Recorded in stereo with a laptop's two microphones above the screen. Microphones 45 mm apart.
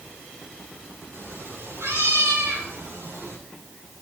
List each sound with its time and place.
1.1 s a cat meowing: 70° right (ahead or behind), 4.5 m